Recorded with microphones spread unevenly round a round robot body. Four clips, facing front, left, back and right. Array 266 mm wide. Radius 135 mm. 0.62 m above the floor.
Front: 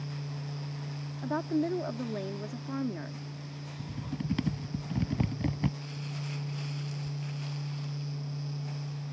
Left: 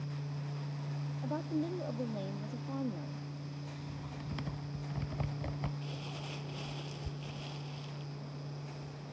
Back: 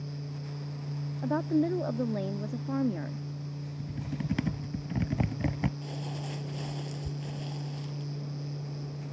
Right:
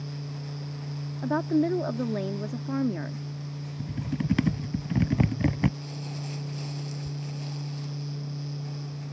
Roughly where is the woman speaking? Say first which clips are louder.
Right 12 dB, back 3 dB; right.